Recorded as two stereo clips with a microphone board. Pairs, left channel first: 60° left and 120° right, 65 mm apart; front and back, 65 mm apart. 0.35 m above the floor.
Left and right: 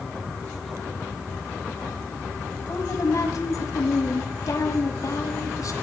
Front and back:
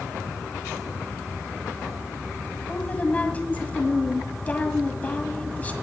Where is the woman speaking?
60° left, 1.9 m.